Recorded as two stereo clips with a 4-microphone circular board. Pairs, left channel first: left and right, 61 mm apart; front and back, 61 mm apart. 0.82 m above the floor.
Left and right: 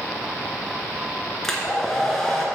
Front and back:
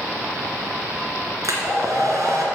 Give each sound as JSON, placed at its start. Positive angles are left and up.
{"t": 1.4, "sound": "a hair dryer", "azimuth_deg": 175, "distance_m": 2.0}